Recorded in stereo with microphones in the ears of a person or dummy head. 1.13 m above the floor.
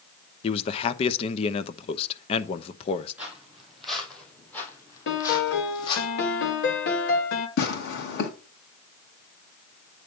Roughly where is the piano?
Left.